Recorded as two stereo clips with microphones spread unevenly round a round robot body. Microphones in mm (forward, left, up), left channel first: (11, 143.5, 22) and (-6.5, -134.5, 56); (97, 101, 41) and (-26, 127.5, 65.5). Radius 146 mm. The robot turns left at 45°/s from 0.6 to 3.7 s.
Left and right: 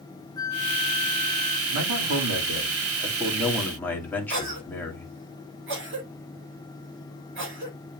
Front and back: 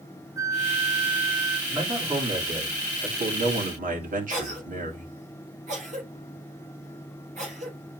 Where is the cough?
145° right, 4 m.